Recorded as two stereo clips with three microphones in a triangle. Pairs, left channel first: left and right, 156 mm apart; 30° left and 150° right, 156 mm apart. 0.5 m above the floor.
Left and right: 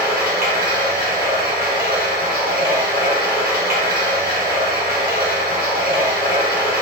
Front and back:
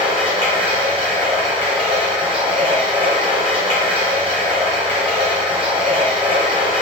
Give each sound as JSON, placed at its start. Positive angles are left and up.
{"t": 0.0, "sound": "running water", "azimuth_deg": -95, "distance_m": 1.4}